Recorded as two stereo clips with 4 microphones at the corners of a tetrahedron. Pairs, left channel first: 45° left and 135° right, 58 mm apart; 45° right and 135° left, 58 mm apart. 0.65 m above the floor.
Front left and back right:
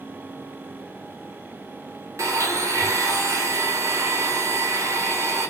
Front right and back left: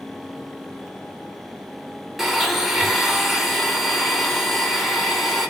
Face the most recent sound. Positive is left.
turn(degrees=-135)